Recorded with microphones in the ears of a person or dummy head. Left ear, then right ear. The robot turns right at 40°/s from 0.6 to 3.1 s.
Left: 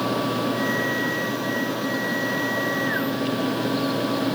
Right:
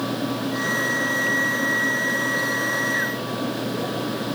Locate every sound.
Only background noise.